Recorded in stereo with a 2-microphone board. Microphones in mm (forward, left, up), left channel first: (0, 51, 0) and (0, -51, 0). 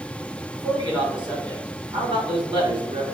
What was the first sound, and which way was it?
A man speaking, 50° right (ahead or behind).